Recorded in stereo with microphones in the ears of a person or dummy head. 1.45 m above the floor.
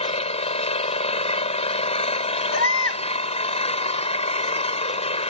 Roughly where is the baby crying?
Left.